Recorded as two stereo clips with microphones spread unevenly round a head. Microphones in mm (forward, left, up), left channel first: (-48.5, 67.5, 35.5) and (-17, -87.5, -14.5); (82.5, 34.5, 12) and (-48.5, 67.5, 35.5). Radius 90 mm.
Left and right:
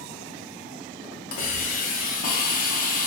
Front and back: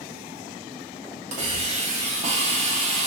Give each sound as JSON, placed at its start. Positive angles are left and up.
{"t": 1.3, "sound": "a hiss", "azimuth_deg": 130, "distance_m": 1.1}